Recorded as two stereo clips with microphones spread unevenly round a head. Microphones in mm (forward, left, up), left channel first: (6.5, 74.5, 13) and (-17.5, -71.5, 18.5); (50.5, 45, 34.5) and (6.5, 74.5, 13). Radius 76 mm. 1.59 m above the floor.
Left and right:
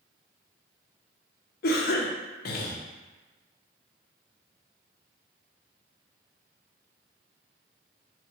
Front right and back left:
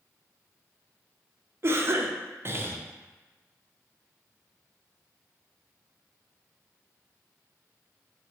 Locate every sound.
1.6 s a cough: 105° left, 0.5 m